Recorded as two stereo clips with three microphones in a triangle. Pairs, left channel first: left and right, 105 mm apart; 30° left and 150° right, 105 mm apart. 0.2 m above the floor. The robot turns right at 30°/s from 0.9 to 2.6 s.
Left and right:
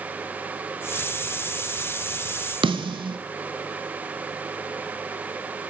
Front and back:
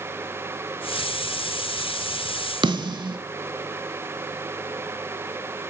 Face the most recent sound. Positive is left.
turn(degrees=-115)